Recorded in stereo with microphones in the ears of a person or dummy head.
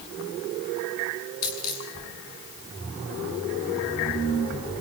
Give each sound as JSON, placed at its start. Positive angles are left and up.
{"t": 1.4, "sound": "a dropped coin", "side_deg": 50, "distance_m": 7.0}